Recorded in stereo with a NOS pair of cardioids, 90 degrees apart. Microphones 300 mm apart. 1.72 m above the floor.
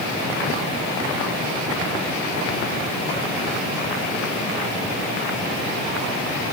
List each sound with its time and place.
Only background noise.